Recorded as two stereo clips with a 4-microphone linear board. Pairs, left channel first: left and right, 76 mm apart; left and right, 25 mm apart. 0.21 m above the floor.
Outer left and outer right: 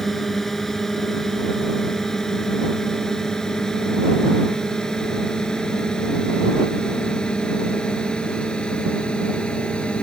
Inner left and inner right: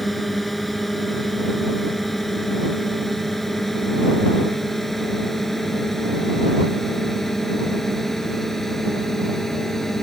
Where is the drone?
5° left (ahead or behind); by 10.0 s 15° left (ahead or behind).